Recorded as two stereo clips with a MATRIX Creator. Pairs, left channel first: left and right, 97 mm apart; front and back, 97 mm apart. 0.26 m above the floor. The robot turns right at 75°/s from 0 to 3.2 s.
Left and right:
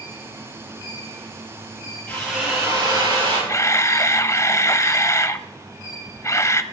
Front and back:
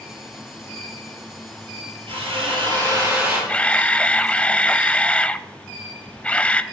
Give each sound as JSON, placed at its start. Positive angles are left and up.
{"t": 2.1, "sound": "a drill", "azimuth_deg": 165, "distance_m": 6.0}
{"t": 3.5, "sound": "a camera shutter", "azimuth_deg": 65, "distance_m": 0.5}